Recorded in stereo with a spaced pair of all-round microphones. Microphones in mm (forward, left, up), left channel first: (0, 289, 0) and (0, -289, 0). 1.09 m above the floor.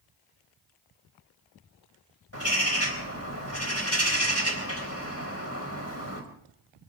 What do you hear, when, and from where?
2.3 s a bird: 25° left (ahead or behind), 3.5 m